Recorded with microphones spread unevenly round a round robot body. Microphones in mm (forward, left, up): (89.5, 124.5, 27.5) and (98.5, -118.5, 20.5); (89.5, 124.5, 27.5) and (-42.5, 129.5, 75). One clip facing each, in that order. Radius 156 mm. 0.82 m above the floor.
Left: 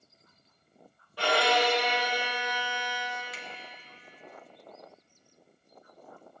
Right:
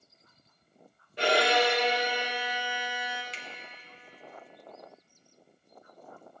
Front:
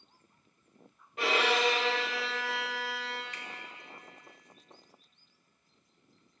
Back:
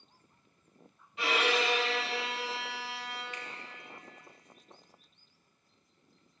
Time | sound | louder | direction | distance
1.2 | a violin | right 1 dB, front 2 dB | 20° right | 1.4 m
3.3 | a finger snap | left 3 dB, back 2 dB | 30° right | 1.3 m